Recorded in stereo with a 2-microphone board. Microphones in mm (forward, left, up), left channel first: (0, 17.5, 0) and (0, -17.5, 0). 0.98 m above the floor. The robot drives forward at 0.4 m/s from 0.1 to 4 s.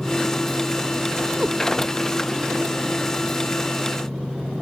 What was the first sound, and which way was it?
A cat meowing, 25° right (ahead or behind).